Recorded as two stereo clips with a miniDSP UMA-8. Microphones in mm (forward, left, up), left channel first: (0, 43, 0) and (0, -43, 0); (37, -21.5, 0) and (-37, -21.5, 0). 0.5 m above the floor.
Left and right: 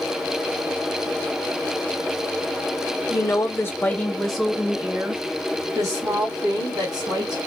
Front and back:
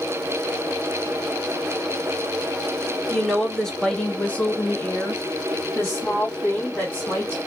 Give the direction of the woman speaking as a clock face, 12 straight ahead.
9 o'clock.